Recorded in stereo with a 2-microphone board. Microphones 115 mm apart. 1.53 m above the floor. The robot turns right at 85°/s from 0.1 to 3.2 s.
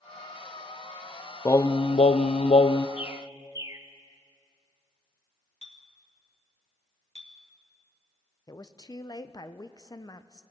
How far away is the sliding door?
I don't hear a sliding door.